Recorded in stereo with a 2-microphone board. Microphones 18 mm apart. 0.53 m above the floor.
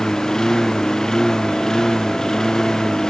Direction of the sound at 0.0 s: 40° left (ahead or behind).